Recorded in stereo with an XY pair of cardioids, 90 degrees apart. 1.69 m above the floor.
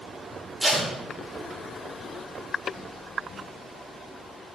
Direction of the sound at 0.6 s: 20° right.